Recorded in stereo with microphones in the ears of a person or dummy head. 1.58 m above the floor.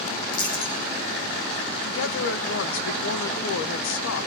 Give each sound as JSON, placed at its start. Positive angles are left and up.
{"t": 0.3, "sound": "a dropped coin", "side_deg": 55, "distance_m": 4.5}
{"t": 1.8, "sound": "a woman speaking", "side_deg": 75, "distance_m": 1.3}